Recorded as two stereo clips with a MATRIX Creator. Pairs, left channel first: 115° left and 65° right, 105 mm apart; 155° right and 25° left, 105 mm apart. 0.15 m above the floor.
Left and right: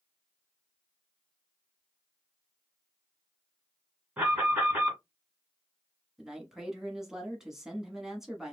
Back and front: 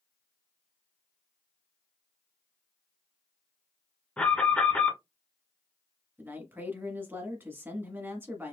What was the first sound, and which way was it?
An alarm, 105° right.